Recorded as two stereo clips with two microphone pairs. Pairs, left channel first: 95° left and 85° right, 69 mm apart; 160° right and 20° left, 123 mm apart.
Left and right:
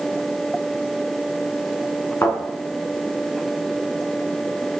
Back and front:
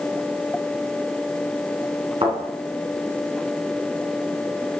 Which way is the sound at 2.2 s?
50° left.